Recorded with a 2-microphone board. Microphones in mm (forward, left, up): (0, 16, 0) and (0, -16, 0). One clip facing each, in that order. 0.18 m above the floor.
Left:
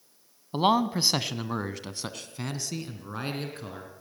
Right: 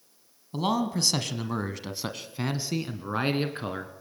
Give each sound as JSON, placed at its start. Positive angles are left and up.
{"t": 0.5, "sound": "a man speaking", "side_deg": 30, "distance_m": 1.1}